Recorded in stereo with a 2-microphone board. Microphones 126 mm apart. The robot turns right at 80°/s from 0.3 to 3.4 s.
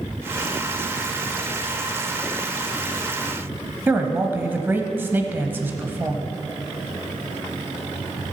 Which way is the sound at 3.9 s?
15° right (ahead or behind).